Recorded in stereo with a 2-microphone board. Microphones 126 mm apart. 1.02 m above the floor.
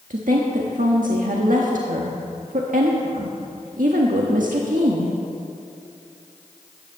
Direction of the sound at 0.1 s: 80° right.